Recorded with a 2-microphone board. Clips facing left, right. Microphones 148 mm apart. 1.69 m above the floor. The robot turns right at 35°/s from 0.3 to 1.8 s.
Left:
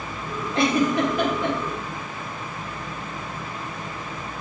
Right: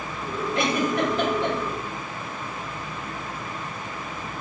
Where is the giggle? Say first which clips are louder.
Left 4 dB; 30° left (ahead or behind), 2.0 m; by 1.6 s centre (ahead or behind), 2.0 m.